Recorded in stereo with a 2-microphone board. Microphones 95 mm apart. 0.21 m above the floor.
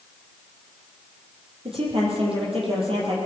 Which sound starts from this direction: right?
A woman speaking, at 1.6 s.